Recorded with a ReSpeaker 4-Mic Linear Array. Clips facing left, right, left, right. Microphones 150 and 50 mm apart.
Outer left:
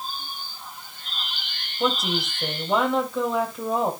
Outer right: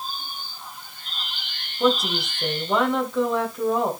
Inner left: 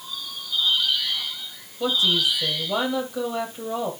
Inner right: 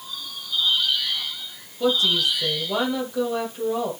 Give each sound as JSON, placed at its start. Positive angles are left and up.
{"t": 1.8, "sound": "a woman speaking", "side_deg": 0, "distance_m": 4.5}